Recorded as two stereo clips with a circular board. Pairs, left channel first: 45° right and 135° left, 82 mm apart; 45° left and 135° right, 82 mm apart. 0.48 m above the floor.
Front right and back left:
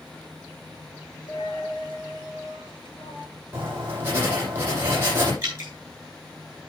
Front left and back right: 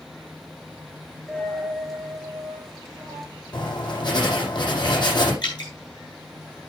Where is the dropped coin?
45° right, 3 m.